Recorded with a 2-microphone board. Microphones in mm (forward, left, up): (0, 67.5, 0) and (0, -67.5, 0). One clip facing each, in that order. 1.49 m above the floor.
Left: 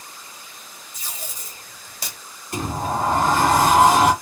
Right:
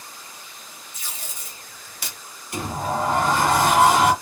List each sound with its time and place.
0.9 s tape being pulled: 40° left (ahead or behind), 1.3 m
2.5 s a sliding door: 40° left (ahead or behind), 1.7 m